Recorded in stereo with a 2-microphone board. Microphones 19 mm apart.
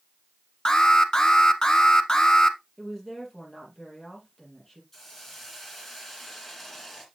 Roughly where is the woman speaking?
Centre.